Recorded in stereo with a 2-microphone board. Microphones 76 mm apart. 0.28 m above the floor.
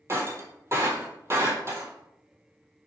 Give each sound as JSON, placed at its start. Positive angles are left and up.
{"t": 0.1, "sound": "breaking glass", "side_deg": -35, "distance_m": 1.2}